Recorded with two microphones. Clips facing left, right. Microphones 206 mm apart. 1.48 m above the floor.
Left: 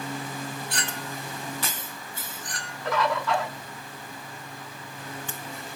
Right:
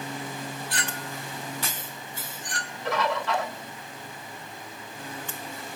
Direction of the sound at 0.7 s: Centre (ahead or behind).